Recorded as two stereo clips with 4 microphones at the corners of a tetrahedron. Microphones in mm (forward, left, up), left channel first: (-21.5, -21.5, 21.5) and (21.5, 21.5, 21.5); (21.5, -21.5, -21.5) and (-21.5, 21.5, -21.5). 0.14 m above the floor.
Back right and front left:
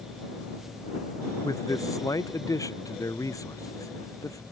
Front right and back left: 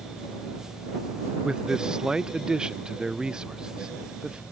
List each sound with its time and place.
1.4 s a man speaking: 150° right